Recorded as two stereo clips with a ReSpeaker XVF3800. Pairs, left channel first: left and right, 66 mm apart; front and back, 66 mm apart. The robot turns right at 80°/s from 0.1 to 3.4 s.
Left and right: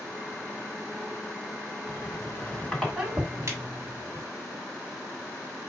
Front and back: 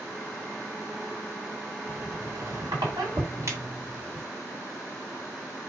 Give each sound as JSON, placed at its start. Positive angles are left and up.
{"t": 1.9, "sound": "a squeak", "azimuth_deg": 105, "distance_m": 2.5}